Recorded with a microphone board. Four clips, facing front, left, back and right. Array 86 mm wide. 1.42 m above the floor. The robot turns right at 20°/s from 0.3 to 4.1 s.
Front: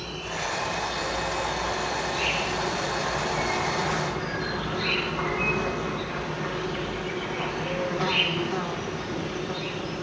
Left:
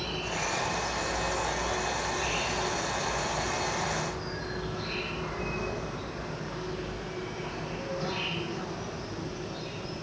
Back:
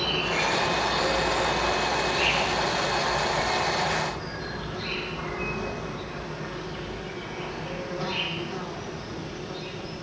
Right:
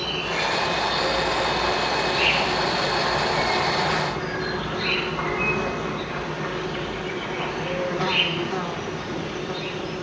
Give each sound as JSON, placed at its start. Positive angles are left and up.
{"t": 0.0, "sound": "an insect", "azimuth_deg": -140, "distance_m": 2.5}